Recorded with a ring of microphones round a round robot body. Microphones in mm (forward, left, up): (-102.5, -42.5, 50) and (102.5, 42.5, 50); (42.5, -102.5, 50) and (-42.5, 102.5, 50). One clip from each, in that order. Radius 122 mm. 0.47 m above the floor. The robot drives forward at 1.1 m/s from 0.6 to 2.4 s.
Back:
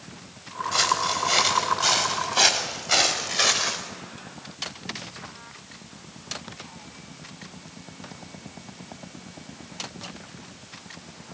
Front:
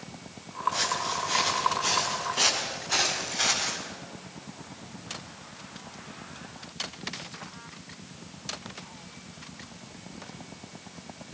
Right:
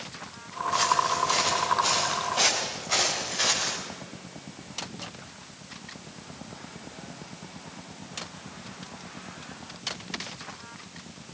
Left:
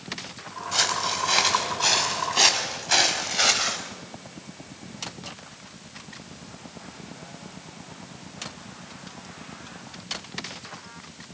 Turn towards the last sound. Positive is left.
turn(degrees=170)